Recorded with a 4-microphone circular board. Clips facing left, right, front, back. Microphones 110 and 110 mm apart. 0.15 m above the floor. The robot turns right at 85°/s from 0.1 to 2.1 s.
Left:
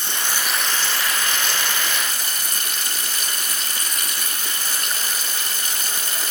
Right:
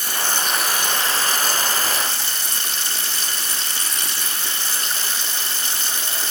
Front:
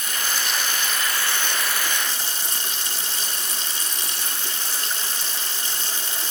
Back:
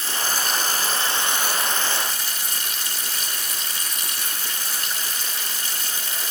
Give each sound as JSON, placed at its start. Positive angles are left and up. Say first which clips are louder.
{"t": 0.0, "sound": "running water", "louder": "right 2 dB, back 2 dB", "azimuth_deg": 140, "distance_m": 0.9}